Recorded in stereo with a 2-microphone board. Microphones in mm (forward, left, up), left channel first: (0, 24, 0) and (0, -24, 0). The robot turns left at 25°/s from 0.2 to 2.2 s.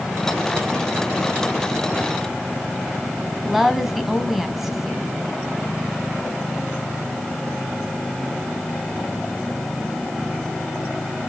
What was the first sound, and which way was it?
A woman speaking, 5° right (ahead or behind).